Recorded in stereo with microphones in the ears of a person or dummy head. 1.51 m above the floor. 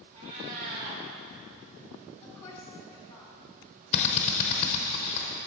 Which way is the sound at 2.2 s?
15° left (ahead or behind).